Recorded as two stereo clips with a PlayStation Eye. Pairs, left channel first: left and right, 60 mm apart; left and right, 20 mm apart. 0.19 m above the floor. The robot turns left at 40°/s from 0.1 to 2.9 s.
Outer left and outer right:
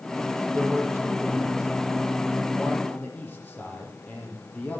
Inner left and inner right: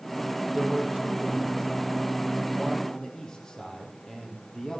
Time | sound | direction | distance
0.5 | a man speaking | 110° right | 5 m